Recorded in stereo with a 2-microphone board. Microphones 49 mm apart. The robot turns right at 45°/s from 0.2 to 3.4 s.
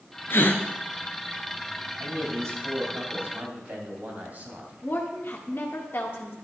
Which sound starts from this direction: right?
A man speaking, at 2.0 s.